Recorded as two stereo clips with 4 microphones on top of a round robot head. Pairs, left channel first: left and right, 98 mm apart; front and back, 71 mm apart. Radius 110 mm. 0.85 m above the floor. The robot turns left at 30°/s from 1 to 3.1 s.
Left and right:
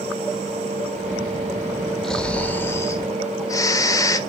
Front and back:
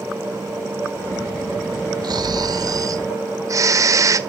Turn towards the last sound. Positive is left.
turn(degrees=145)